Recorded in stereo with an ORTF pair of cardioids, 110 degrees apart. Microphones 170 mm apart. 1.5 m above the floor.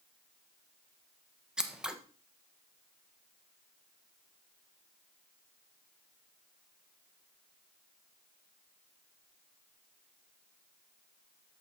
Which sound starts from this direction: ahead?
Scissors, at 1.6 s.